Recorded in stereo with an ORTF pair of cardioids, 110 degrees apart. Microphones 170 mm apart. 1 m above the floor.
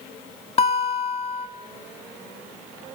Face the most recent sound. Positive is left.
turn(degrees=35)